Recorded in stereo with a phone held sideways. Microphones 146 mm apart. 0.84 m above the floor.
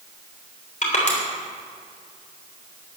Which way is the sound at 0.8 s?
60° left (ahead or behind).